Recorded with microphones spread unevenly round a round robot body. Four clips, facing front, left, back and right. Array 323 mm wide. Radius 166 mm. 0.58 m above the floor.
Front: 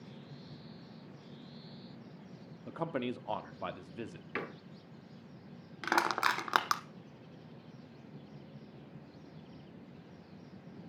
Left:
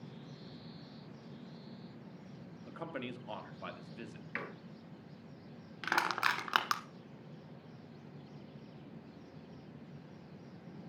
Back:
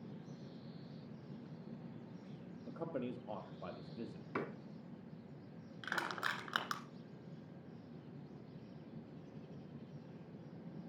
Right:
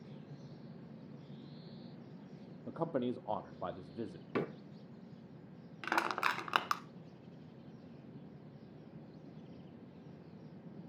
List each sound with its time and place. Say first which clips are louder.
2.7 s a man speaking: right 7 dB, front 6 dB; 50° right, 0.9 m
4.3 s a door slam: right 8 dB, front 1 dB; 85° right, 0.8 m
5.8 s crushing: left 1 dB, front 11 dB; 5° right, 1.1 m